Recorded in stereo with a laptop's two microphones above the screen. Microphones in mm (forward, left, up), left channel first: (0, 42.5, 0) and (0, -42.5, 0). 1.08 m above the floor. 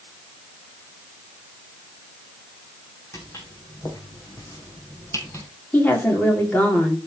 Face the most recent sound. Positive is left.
turn(degrees=20)  # may be behind; listen again after turning